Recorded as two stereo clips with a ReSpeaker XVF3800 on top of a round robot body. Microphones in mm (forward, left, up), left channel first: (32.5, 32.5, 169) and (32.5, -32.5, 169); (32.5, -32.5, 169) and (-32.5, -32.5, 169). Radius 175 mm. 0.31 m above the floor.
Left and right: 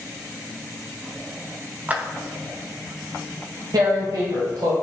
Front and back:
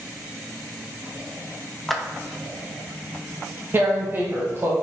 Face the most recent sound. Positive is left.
turn(degrees=-120)